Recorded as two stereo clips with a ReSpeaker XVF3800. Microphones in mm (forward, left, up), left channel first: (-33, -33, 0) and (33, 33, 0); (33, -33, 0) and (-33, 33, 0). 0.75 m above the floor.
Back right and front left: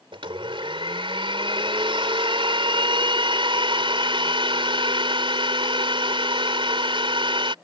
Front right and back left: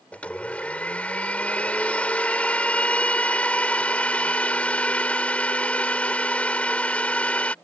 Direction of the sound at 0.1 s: 30° left.